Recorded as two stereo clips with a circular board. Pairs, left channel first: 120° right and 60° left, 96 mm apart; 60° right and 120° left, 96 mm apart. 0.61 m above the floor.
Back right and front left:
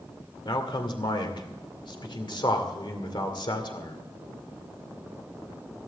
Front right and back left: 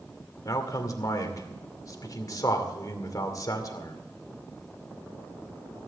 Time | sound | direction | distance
0.5 | a man speaking | 100° right | 2 m